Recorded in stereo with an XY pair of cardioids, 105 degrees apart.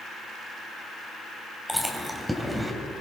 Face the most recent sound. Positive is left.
turn(degrees=-5)